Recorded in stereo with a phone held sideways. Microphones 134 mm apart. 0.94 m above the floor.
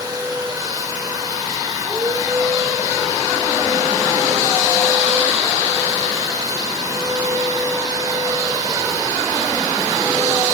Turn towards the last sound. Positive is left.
turn(degrees=-30)  # may be behind; listen again after turning